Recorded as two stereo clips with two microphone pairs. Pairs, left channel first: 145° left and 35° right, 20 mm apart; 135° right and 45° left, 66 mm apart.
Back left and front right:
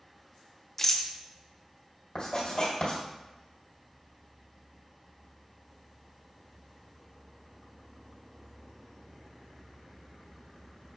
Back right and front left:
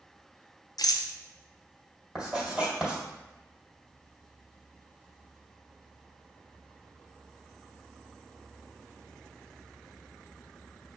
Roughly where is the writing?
Behind left.